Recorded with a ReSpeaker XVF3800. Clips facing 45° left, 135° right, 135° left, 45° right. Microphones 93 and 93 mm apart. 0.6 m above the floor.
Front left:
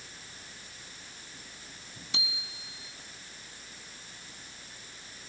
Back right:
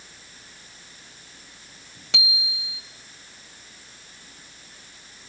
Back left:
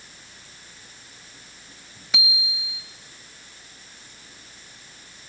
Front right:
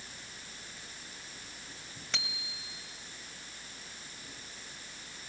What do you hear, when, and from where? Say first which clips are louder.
2.1 s a bicycle bell: back right 9 dB, back left 10 dB; 145° right, 2 m